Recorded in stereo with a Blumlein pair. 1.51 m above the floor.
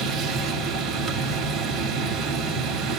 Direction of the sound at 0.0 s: 25° right.